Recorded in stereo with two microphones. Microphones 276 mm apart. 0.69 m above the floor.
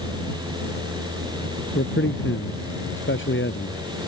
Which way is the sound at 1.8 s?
45° left (ahead or behind).